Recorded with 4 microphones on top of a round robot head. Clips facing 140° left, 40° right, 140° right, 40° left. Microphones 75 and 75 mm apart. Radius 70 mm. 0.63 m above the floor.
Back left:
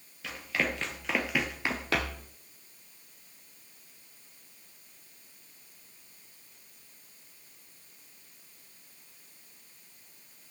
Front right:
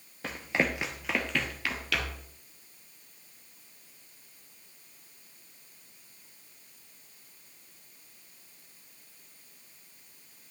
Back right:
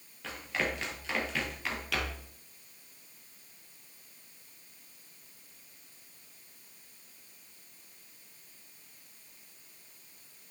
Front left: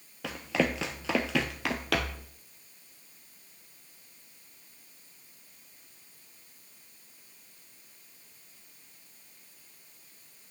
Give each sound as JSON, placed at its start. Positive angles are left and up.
{"t": 0.2, "sound": "running footsteps", "azimuth_deg": 15, "distance_m": 0.9}